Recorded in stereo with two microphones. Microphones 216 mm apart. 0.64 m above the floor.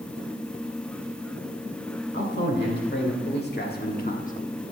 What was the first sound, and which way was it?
A man speaking, 50° left (ahead or behind).